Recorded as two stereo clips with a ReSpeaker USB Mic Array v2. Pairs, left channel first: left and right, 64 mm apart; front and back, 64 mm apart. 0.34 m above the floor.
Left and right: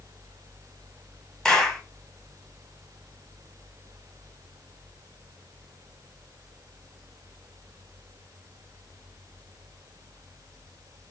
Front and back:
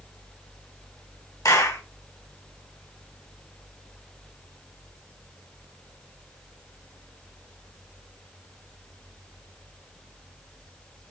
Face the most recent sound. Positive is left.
turn(degrees=10)